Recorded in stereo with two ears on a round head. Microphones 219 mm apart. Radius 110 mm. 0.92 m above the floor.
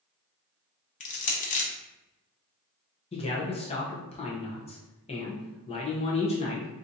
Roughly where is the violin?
I don't hear a violin.